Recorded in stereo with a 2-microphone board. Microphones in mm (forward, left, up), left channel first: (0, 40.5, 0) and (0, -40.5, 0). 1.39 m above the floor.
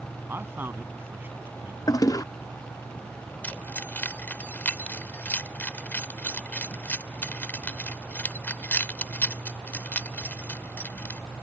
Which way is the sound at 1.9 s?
45° left (ahead or behind).